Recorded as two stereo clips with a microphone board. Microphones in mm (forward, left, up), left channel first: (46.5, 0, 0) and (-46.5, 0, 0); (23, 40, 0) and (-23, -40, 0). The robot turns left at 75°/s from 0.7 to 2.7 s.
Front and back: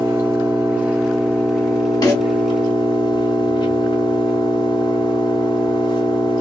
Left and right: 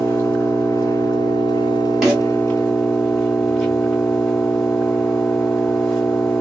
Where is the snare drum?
35° right, 1.9 m; by 2.2 s 50° right, 1.9 m.